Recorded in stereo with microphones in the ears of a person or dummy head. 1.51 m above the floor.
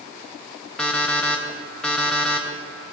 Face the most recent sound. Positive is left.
turn(degrees=10)  # may be behind; listen again after turning